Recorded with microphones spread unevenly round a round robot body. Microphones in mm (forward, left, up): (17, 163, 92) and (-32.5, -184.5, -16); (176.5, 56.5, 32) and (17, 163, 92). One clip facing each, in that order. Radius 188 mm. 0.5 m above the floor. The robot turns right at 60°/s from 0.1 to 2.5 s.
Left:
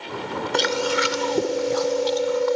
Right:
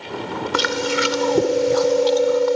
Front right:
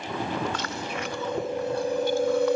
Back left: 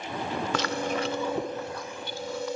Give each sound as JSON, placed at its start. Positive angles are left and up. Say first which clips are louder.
{"t": 0.5, "sound": "chewing", "louder": "right 1 dB, back left 4 dB", "azimuth_deg": -170}